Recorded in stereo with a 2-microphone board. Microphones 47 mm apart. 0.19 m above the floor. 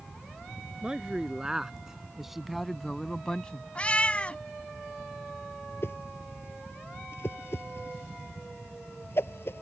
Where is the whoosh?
60° left (ahead or behind).